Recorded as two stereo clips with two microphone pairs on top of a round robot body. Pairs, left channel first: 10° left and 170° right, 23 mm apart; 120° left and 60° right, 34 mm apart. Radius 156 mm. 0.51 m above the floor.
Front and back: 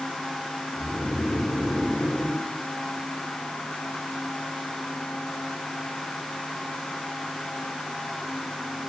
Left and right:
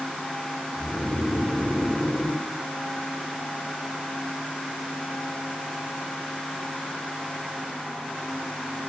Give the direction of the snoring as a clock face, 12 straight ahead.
11 o'clock.